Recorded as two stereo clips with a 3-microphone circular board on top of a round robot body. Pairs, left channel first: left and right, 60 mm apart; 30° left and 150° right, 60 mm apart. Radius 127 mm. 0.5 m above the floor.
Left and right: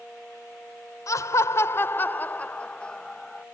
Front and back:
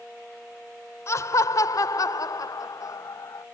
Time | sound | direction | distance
1.1 | laughter | 65° left | ?